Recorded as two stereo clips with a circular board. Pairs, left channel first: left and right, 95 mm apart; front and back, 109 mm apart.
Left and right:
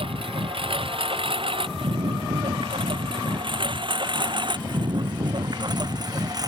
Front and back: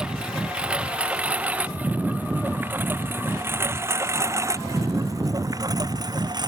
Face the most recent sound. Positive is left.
turn(degrees=-135)